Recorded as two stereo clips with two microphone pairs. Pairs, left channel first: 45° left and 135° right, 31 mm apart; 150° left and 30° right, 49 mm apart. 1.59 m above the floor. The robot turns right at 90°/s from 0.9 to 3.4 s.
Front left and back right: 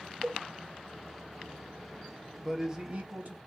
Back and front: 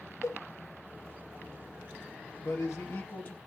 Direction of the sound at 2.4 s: 125° left.